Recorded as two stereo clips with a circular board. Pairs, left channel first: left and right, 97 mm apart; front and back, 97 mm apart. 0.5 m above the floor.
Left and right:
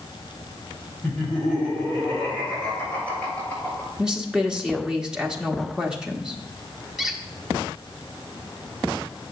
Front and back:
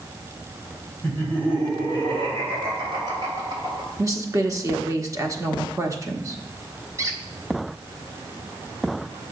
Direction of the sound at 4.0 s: 165° right.